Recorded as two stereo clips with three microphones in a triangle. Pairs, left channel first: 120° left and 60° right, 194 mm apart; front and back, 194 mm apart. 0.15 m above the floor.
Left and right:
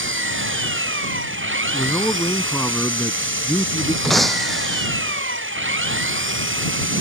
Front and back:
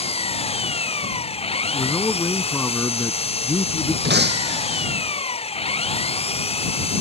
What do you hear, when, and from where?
0.0 s an engine running: 60° right
1.7 s a man speaking: 60° left
4.0 s breaking glass: 150° right